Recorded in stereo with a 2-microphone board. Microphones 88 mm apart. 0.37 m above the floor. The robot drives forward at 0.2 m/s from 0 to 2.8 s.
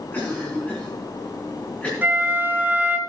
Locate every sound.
0.1 s a cough: 20° left (ahead or behind), 4.5 m; by 1.9 s 15° left (ahead or behind), 5 m
2.0 s a flute: 25° right (ahead or behind), 1.1 m; by 3.0 s 20° right (ahead or behind), 1.1 m